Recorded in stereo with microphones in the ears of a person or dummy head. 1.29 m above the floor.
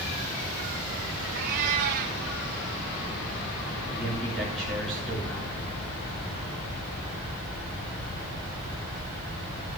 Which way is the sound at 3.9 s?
5° left (ahead or behind).